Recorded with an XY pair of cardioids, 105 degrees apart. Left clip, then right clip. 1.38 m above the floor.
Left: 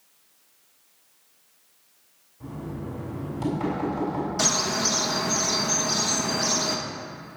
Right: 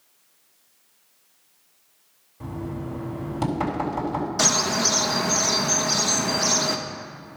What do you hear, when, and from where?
2.4 s knocking: 65° right, 4 m
4.4 s a bird: 30° right, 1.0 m